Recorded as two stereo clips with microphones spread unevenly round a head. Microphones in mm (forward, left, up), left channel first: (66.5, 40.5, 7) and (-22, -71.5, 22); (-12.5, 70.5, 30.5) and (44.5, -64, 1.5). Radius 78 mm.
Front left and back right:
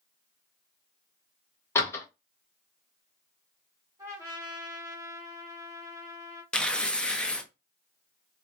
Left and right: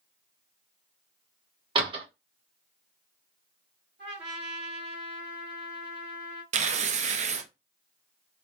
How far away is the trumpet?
About 1.5 m.